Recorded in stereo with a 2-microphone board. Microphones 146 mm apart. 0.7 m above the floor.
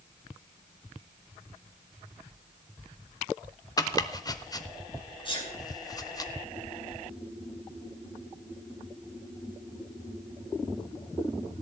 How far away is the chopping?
About 0.7 m.